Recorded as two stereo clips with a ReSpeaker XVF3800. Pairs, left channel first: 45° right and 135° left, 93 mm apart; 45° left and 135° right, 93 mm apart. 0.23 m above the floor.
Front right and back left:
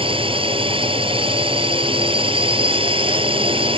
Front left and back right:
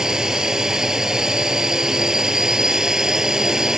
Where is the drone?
140° left.